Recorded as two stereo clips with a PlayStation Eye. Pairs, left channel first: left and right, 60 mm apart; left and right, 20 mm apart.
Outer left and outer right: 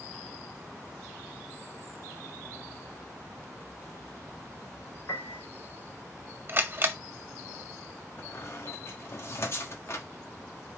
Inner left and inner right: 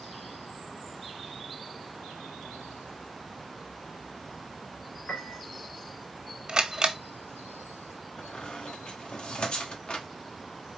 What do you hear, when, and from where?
5.1 s a piano: 80° left, 3 m
6.5 s a camera shutter: 35° right (ahead or behind), 0.7 m
8.2 s a squeak: 50° left (ahead or behind), 1.1 m